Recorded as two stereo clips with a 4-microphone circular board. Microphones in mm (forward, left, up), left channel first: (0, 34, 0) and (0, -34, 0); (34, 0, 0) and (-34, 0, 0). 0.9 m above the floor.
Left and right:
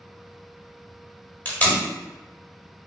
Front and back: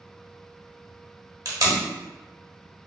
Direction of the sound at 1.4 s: 155° left.